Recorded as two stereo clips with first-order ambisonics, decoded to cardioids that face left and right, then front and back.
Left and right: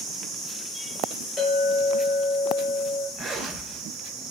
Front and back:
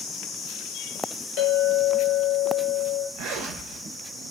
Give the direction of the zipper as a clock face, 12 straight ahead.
5 o'clock.